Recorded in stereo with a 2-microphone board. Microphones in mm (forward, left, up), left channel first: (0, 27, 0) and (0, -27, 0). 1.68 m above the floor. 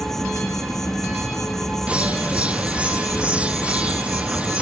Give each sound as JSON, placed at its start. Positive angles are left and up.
{"t": 0.0, "sound": "an insect", "side_deg": 5, "distance_m": 1.1}
{"t": 1.9, "sound": "a bird", "side_deg": -20, "distance_m": 0.9}